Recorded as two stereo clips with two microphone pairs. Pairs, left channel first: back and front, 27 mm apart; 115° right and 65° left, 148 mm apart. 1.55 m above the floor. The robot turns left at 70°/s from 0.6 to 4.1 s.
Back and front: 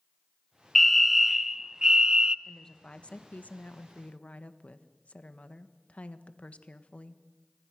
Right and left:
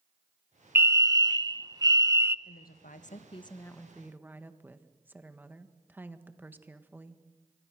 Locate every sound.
0.8 s a fire alarm: 120° left, 0.5 m; by 2.4 s 10° left, 0.5 m
2.5 s a woman speaking: 100° right, 1.4 m; by 7.2 s 145° left, 1.4 m